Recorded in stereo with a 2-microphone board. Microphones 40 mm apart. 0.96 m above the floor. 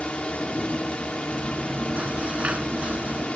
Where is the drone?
25° left (ahead or behind).